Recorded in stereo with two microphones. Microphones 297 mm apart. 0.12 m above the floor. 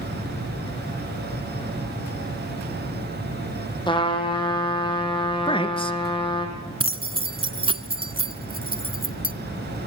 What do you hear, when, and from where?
3.9 s a trumpet: 15° left (ahead or behind), 4 m
5.5 s a man speaking: 15° left (ahead or behind), 1.5 m
6.8 s keys jangling: 15° right (ahead or behind), 1.1 m